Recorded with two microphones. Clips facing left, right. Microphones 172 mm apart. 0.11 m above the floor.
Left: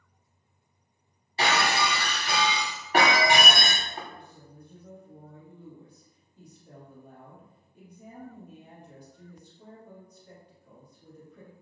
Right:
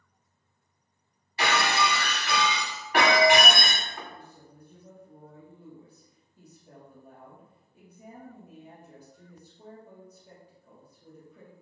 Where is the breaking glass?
35° left (ahead or behind), 1.6 m.